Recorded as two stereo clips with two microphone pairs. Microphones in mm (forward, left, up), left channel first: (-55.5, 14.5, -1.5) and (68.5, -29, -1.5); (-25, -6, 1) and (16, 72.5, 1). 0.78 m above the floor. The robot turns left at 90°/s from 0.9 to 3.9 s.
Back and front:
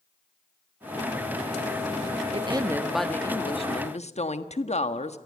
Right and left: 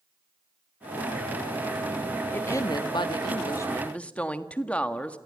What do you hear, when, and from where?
2.3 s a woman speaking: 50° right, 1.4 m; by 5.2 s 165° left, 1.4 m